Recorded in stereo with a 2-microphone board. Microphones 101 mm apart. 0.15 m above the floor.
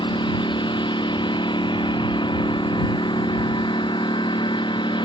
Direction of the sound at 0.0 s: 50° left (ahead or behind).